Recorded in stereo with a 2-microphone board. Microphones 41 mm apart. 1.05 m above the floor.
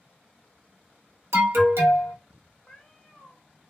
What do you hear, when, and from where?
1.3 s an alarm: 80° right, 1.0 m
2.7 s a cat meowing: 10° left (ahead or behind), 0.6 m